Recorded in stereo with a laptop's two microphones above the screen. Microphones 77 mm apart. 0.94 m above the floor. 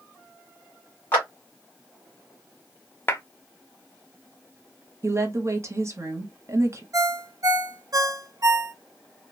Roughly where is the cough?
I don't hear a cough.